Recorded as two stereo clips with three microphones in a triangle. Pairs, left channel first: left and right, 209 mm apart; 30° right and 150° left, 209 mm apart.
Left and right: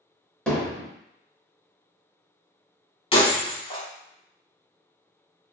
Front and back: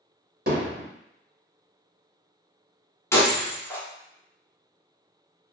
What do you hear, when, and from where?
0.5 s hammering: 175° left, 1.3 m
3.1 s breaking glass: 40° left, 0.8 m